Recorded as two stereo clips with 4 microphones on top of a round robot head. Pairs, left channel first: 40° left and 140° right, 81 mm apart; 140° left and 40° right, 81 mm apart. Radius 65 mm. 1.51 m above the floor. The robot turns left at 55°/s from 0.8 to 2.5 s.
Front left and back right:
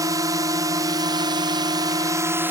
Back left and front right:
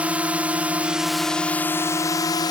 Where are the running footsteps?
I don't hear running footsteps.